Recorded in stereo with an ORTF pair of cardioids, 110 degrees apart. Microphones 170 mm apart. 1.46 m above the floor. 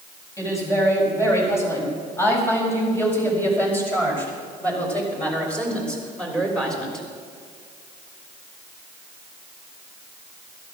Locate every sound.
0.4 s a woman speaking: 20° left, 8.5 m; by 7.1 s 5° left, 5.5 m